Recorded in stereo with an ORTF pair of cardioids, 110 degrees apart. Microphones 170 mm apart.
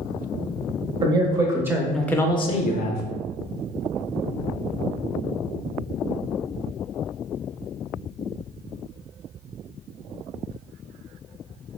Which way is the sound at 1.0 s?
30° right.